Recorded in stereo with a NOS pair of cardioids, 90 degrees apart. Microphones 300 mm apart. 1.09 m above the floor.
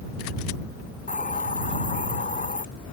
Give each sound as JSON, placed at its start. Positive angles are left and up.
{"t": 1.1, "sound": "a hiss", "azimuth_deg": 25}